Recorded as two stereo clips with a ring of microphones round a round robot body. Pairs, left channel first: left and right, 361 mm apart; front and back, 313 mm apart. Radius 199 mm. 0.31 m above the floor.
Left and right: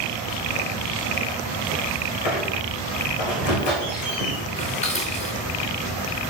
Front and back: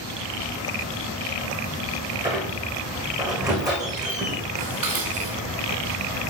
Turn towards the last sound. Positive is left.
turn(degrees=160)